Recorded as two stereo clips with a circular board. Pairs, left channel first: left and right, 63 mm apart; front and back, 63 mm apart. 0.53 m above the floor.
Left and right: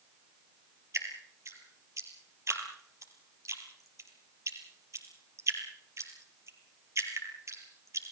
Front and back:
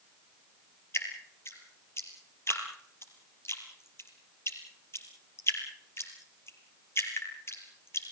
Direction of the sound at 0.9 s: 50° right.